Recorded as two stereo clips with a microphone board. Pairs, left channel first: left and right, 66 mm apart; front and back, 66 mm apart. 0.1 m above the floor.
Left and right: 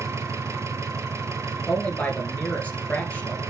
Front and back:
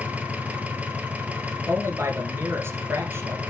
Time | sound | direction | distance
0.0 | an engine running | 115° right | 1.3 m
1.7 | a man speaking | 150° left | 2 m